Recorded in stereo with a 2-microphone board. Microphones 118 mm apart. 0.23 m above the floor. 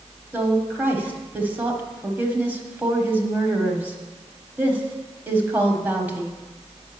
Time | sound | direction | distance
0.3 | a woman speaking | 15° right (ahead or behind) | 1.4 m